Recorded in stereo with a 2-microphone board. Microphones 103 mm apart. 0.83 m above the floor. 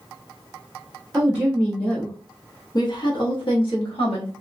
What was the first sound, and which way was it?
A woman speaking, 15° right (ahead or behind).